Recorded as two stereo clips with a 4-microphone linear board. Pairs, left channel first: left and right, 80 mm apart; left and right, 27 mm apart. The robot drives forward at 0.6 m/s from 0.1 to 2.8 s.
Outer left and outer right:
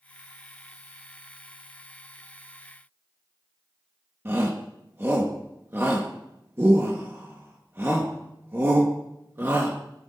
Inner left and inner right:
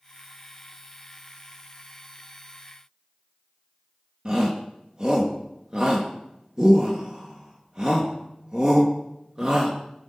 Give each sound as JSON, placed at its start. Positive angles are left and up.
{"t": 4.2, "sound": "a shout", "side_deg": -30, "distance_m": 1.4}